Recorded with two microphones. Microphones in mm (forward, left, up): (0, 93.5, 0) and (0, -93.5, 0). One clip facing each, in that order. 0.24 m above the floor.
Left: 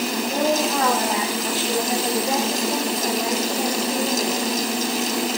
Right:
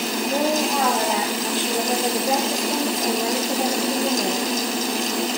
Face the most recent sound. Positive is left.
turn(degrees=-45)  # may be behind; listen again after turning